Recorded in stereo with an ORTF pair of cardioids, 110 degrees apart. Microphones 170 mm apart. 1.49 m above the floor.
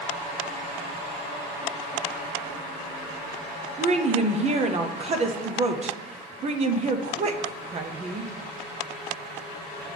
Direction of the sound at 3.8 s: 40° right.